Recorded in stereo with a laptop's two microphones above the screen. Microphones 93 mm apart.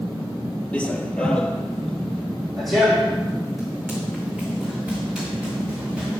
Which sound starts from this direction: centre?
Running footsteps, at 0.7 s.